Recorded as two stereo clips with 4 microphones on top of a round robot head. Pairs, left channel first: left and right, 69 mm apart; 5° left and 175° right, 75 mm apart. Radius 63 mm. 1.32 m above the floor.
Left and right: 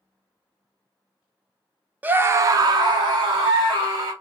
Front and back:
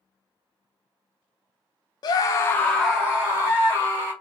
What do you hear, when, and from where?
2.0 s a scream: 25° right, 0.5 m; by 4.1 s 115° right, 1.1 m